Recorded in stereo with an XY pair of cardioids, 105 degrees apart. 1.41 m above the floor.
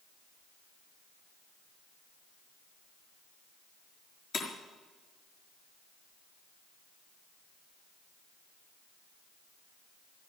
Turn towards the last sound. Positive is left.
turn(degrees=55)